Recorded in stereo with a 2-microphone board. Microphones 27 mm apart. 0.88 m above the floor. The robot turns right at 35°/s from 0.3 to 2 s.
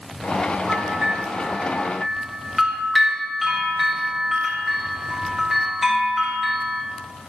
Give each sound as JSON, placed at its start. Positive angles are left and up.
{"t": 0.7, "sound": "a bell", "azimuth_deg": -55, "distance_m": 1.2}